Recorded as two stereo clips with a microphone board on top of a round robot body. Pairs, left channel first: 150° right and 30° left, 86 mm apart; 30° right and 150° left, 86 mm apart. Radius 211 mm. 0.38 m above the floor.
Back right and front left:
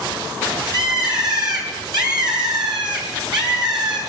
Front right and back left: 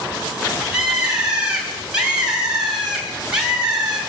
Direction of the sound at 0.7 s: 70° left.